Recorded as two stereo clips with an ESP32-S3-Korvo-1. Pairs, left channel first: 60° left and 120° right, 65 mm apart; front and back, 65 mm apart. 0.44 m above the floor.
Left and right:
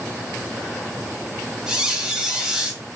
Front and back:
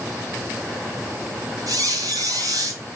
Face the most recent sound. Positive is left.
turn(degrees=165)